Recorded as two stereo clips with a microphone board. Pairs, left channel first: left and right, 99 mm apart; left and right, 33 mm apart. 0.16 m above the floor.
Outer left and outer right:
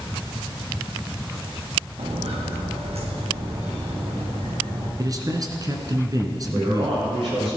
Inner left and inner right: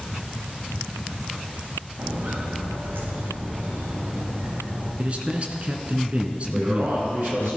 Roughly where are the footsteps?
Right.